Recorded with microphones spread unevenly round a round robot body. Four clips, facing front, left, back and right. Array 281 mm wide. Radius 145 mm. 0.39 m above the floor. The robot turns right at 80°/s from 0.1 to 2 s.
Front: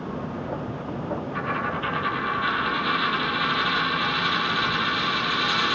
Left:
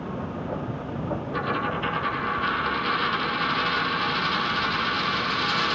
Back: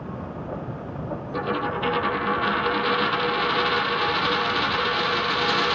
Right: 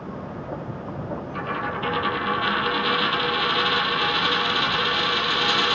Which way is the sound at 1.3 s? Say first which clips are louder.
Left 1 dB, back 5 dB; 155° left.